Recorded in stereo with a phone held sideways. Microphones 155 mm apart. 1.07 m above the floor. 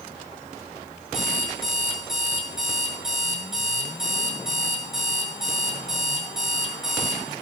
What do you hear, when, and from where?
1.1 s an alarm clock: 5° right (ahead or behind), 7.5 m